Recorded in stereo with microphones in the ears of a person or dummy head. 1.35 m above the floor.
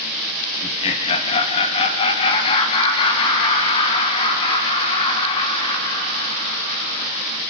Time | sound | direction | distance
0.6 | laughter | 40° left (ahead or behind) | 2 m